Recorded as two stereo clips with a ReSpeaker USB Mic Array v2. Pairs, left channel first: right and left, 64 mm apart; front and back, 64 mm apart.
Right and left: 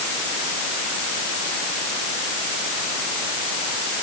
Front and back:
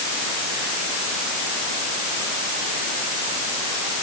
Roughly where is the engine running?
I don't hear an engine running.